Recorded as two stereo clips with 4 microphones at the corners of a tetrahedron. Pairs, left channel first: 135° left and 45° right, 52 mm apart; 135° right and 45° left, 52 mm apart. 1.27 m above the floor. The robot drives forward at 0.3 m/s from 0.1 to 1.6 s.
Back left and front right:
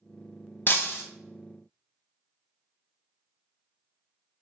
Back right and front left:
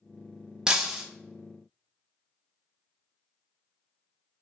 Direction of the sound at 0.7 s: 115° left.